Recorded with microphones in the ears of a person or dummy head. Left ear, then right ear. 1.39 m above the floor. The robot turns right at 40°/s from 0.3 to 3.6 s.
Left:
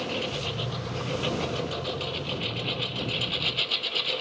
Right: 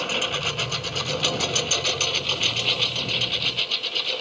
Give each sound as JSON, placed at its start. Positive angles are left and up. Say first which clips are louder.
{"t": 0.0, "sound": "a lawn mower", "louder": "right 6 dB", "side_deg": -50}